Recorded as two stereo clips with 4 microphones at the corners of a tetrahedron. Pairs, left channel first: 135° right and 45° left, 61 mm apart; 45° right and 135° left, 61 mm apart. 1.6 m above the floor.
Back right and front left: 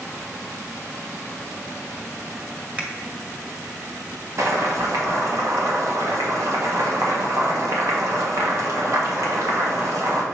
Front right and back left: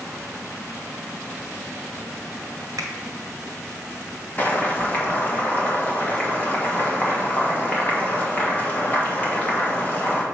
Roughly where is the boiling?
Ahead.